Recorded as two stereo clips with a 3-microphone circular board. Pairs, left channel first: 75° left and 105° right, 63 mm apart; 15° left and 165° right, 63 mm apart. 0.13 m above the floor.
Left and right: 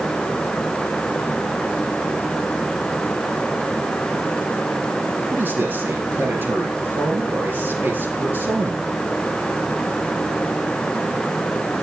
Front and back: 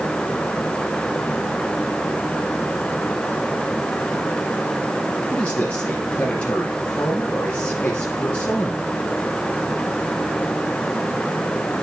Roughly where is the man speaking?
Ahead right.